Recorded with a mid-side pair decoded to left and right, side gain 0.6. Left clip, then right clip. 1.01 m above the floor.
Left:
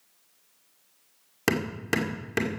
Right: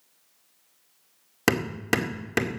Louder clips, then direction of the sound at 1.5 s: Right 3 dB; 20° right.